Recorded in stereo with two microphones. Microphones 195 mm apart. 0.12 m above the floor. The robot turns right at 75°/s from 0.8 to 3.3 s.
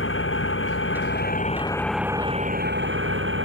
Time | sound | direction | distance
0.0 | an engine running | 95° left | ?